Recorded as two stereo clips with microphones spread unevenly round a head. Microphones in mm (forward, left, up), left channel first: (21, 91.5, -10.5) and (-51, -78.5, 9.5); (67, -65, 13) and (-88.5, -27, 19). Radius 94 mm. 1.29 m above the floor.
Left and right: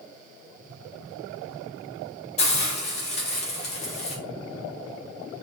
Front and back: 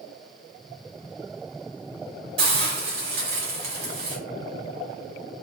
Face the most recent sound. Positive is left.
turn(degrees=125)